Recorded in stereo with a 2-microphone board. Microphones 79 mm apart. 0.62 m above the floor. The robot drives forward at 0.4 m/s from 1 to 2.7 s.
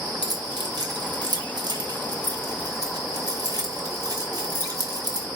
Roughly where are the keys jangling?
Right.